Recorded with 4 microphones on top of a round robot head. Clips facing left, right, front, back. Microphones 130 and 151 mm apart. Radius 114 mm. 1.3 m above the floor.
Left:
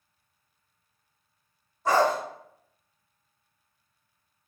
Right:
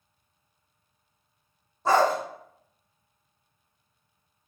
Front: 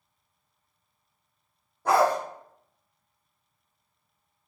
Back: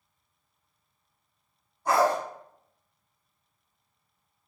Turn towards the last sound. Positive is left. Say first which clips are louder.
# right 1 dB, front 2 dB
turn(degrees=-35)